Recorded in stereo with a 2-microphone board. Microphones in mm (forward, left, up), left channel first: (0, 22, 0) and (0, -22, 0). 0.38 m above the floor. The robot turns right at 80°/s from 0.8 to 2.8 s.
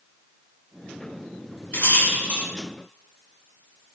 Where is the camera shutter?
No camera shutter in this recording.